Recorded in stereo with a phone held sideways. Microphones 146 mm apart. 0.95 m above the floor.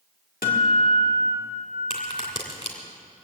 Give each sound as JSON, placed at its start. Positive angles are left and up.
{"t": 0.4, "sound": "a guitar", "side_deg": 85, "distance_m": 2.0}
{"t": 1.9, "sound": "a crack", "side_deg": 45, "distance_m": 2.5}